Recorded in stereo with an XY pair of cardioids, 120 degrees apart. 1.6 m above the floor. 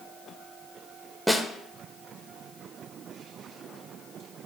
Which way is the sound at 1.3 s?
Straight ahead.